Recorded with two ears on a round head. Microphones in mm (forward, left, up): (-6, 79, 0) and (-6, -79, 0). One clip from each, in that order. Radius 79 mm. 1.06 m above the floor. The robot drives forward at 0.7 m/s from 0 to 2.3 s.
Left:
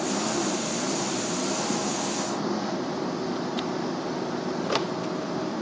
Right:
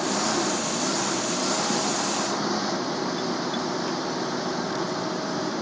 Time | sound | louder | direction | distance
0.0 | an engine running | right 3 dB | 40° right (ahead or behind) | ?